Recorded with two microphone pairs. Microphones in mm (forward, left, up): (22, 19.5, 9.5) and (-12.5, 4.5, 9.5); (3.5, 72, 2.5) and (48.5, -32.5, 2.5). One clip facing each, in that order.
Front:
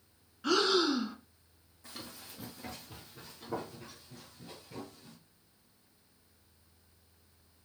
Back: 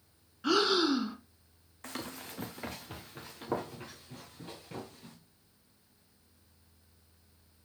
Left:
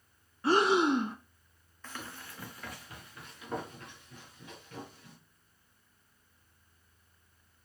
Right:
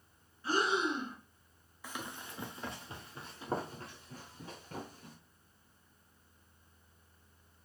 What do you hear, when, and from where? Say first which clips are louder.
0.4 s breathing: back 1 dB, left 7 dB; 120° left, 0.6 m
1.8 s running footsteps: back 6 dB, right 1 dB; 145° right, 0.9 m; by 5.2 s 115° right, 3 m